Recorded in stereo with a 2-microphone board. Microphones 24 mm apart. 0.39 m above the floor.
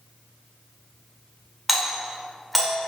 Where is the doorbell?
5° right (ahead or behind), 1.4 m.